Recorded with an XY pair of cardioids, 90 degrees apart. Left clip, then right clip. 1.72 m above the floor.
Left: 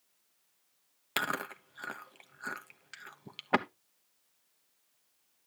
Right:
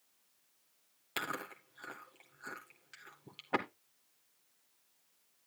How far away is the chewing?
About 1.1 m.